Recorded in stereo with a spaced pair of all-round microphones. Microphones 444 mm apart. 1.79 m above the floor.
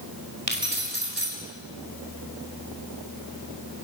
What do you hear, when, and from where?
0.5 s keys jangling: 65° right (ahead or behind), 5.5 m